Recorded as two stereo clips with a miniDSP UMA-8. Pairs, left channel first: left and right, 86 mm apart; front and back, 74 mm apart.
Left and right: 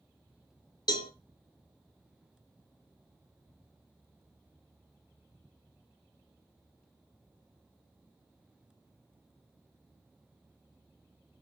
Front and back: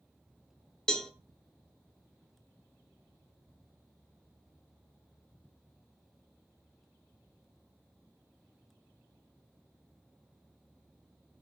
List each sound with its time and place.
0.9 s a cowbell: 80° left, 0.7 m